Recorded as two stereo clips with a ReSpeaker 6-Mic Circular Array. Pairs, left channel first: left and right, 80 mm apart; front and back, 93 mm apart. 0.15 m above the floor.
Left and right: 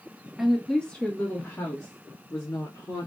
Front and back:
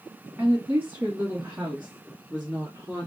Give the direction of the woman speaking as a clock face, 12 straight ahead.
6 o'clock.